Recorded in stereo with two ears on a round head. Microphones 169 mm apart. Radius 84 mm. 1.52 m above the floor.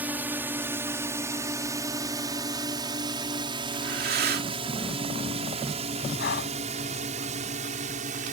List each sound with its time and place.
0.0 s a drone: 10° right (ahead or behind); by 8.3 s 45° right (ahead or behind)
3.7 s breathing: 55° right (ahead or behind)
6.2 s breathing: 60° left (ahead or behind)